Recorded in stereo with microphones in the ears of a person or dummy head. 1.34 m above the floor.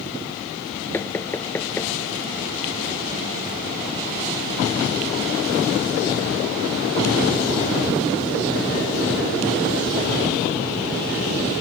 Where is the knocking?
10° left (ahead or behind).